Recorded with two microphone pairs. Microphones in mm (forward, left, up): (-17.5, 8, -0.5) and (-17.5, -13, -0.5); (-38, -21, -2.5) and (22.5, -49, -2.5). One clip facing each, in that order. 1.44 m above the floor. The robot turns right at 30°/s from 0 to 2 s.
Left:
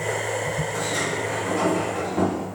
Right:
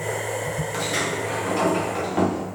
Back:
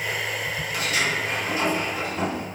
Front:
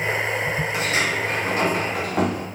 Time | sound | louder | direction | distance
0.7 | a sliding door | even, even | 90° right | 0.7 m